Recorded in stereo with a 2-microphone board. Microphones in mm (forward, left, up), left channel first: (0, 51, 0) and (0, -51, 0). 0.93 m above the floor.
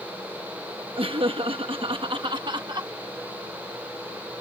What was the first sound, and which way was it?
Laughter, 60° right (ahead or behind).